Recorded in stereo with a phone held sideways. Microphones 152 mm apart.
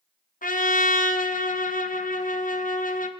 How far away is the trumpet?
About 0.6 m.